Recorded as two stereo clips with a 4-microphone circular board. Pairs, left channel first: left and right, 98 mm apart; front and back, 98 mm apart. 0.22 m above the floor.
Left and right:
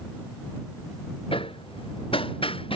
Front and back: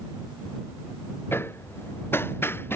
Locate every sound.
1.3 s hammering: 70° left